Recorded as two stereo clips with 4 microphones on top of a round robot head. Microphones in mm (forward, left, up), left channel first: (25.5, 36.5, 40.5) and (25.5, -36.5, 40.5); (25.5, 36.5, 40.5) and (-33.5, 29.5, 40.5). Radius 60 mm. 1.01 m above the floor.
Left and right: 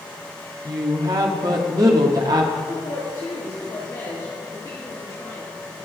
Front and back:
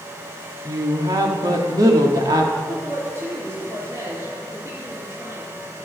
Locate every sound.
0.7 s a woman speaking: 140° right, 1.7 m
2.7 s a woman speaking: 145° left, 3.5 m